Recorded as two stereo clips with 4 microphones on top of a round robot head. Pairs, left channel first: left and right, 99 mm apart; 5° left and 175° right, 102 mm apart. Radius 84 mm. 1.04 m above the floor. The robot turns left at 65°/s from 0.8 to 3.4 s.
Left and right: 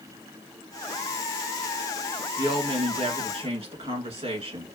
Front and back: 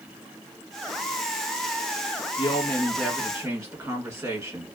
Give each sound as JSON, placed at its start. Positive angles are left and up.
{"t": 2.4, "sound": "a woman speaking", "azimuth_deg": -45, "distance_m": 1.8}